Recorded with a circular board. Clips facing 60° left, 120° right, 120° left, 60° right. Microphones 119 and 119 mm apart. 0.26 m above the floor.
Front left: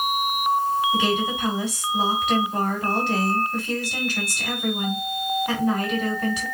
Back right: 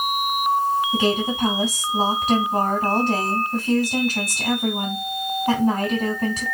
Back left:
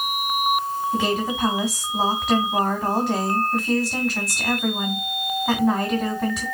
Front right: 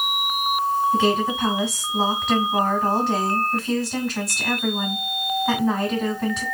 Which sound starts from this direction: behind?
A woman speaking, at 0.9 s.